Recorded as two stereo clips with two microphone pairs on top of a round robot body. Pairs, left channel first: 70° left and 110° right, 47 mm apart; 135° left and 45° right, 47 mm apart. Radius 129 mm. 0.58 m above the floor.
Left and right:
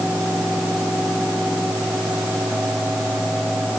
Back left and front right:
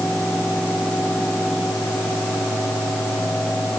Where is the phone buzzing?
No phone buzzing in this recording.